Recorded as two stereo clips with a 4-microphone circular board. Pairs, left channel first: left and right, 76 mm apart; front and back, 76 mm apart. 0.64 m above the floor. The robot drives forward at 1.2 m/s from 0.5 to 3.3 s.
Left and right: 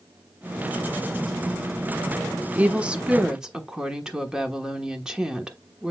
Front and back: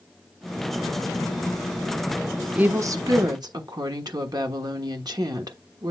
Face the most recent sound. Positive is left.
turn(degrees=-170)